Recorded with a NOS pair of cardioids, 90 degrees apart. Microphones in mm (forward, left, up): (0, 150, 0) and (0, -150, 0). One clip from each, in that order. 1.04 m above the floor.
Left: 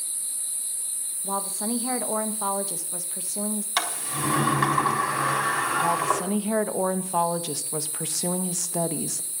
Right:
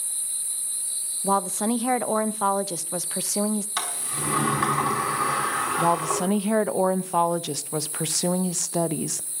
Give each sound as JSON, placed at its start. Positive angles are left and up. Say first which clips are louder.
{"t": 1.2, "sound": "a woman speaking", "louder": "right 7 dB", "azimuth_deg": -45, "distance_m": 0.6}
{"t": 3.8, "sound": "a sliding door", "louder": "left 3 dB", "azimuth_deg": 30, "distance_m": 4.0}
{"t": 5.8, "sound": "a woman speaking", "louder": "right 1 dB", "azimuth_deg": -30, "distance_m": 0.6}